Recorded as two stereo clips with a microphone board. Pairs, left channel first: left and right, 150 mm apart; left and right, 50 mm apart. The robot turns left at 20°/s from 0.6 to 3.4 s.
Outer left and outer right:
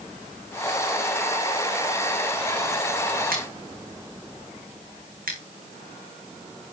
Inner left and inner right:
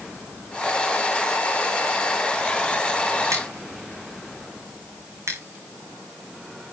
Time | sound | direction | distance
3.3 | scissors | 80° right | 2.5 m